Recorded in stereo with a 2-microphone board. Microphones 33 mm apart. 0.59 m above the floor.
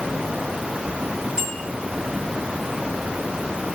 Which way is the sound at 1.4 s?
25° right (ahead or behind).